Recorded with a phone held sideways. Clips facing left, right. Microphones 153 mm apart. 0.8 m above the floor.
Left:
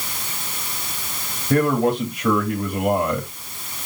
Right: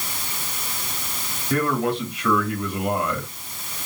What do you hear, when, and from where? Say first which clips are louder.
1.5 s a man speaking: left 4 dB; 25° left (ahead or behind), 1.8 m